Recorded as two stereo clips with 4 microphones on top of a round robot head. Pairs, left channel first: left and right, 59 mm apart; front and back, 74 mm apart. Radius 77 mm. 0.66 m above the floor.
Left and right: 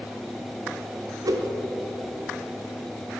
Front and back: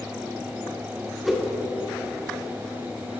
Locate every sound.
1.2 s a whoosh: 95° right, 1.1 m